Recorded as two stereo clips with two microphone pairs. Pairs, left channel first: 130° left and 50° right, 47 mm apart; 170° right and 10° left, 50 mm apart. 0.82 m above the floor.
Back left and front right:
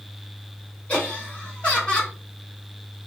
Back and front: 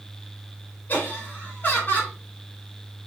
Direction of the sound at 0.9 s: 175° left.